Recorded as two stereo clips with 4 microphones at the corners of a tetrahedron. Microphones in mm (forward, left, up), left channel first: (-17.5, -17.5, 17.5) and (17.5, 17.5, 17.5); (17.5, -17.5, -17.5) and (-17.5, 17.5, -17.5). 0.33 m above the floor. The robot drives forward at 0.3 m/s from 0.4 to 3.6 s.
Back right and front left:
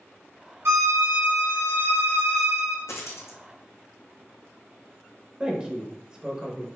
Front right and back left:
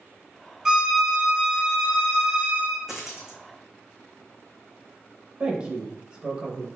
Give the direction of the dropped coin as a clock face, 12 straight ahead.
5 o'clock.